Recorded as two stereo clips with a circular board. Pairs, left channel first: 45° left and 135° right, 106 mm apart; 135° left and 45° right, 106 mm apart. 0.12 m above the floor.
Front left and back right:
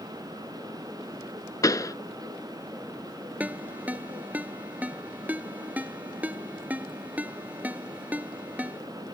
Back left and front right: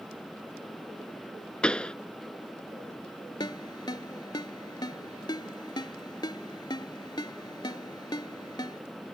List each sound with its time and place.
1.6 s a pop: 60° left
3.4 s a ringtone: 155° left